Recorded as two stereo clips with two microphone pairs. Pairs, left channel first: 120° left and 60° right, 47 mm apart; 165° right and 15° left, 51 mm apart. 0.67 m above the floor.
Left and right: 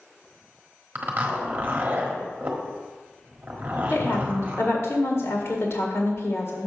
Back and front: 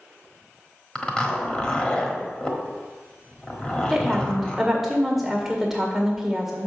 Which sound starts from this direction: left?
A woman speaking, at 3.9 s.